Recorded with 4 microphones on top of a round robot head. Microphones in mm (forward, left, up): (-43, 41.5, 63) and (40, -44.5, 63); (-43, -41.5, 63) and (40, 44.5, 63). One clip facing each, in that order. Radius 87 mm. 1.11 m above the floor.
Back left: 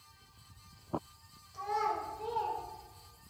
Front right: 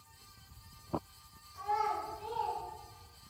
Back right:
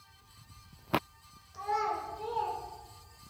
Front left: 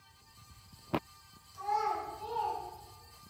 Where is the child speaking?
175° right, 3 m; by 2.6 s straight behind, 2.5 m.